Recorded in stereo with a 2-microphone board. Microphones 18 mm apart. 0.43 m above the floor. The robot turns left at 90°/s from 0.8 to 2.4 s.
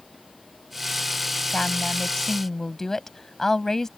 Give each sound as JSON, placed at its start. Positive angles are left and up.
{"t": 1.5, "sound": "a woman speaking", "azimuth_deg": 110}